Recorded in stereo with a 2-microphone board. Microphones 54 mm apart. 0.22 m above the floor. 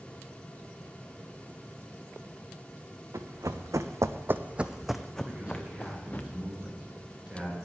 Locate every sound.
3.1 s running footsteps: 75° right (ahead or behind), 0.9 m; by 6.2 s 30° left (ahead or behind), 1.2 m
5.2 s a man speaking: 20° right (ahead or behind), 3 m